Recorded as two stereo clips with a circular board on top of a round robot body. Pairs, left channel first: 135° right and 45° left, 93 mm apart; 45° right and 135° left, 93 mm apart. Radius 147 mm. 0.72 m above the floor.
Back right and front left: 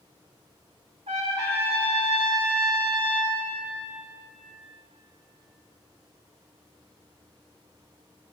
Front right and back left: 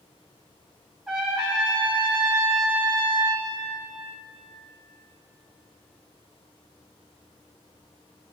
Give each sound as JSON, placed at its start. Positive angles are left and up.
{"t": 1.1, "sound": "a trumpet", "azimuth_deg": 55, "distance_m": 4.5}